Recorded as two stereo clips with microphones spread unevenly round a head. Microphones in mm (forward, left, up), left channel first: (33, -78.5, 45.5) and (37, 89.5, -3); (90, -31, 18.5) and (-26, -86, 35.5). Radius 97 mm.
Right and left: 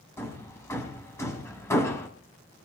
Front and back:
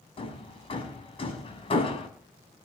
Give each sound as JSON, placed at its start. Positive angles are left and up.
{"t": 0.2, "sound": "hammering", "azimuth_deg": -20, "distance_m": 6.5}